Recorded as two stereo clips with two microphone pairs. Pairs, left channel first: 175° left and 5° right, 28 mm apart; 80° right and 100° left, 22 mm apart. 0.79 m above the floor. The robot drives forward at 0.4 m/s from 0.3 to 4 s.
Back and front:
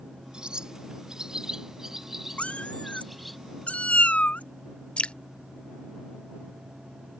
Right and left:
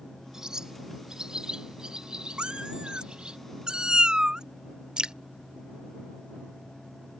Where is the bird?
45° left; by 3.4 s 85° left.